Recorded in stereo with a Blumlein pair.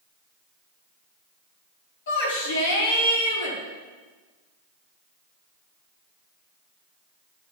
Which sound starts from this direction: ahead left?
A shout, at 2.1 s.